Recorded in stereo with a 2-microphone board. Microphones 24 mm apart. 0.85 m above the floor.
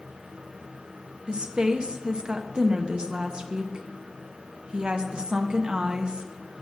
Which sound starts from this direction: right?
A woman speaking, at 1.3 s.